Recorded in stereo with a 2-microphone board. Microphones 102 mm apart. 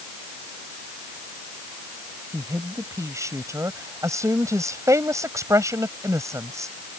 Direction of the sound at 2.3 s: 30° right (ahead or behind).